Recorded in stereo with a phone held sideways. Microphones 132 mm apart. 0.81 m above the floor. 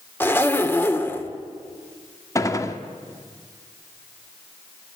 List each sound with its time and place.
0.2 s a zipper: 15° left (ahead or behind), 1.8 m
2.4 s a gunshot: 25° left (ahead or behind), 1.7 m